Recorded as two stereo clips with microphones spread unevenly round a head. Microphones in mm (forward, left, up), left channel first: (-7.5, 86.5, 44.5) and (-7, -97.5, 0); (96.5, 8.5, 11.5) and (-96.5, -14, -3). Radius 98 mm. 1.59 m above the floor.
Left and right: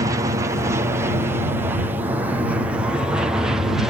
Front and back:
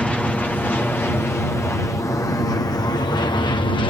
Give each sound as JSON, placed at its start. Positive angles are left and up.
{"t": 0.0, "sound": "an aircraft", "azimuth_deg": -80}